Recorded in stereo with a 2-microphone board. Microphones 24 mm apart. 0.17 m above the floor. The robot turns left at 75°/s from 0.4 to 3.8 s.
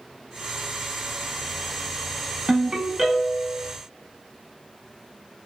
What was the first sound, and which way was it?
A ringtone, 30° right (ahead or behind).